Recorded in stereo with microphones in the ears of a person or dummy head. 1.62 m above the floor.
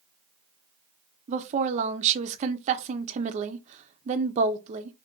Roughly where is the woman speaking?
Right.